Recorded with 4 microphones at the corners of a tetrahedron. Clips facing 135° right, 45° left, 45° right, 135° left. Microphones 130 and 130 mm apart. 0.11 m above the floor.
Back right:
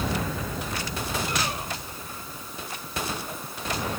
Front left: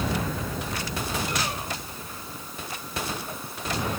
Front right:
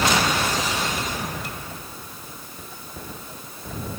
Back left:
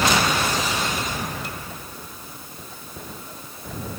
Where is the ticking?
No ticking in this recording.